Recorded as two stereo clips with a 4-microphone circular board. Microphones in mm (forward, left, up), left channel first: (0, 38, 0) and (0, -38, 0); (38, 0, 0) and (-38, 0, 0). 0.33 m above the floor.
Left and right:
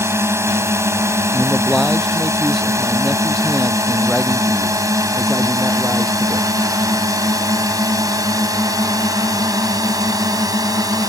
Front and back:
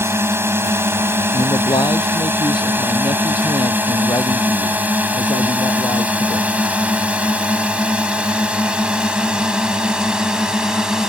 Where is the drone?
130° right; by 11.1 s 100° right.